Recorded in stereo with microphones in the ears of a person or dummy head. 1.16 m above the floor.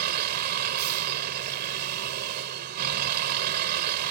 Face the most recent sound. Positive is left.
turn(degrees=-60)  # may be behind; listen again after turning